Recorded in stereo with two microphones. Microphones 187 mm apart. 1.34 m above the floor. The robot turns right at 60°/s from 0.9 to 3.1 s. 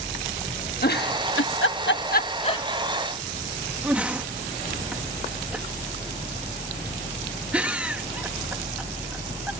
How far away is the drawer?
I don't hear a drawer.